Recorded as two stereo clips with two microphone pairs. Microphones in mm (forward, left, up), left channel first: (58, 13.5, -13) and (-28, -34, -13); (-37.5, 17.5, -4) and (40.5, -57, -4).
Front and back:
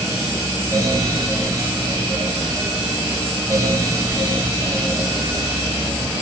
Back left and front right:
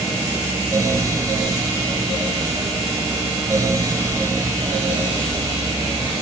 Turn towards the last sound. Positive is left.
No sound to turn to.